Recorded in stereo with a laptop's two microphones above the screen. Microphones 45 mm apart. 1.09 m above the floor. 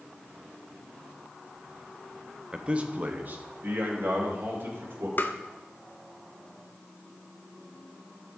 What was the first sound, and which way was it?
A man speaking, 20° right (ahead or behind).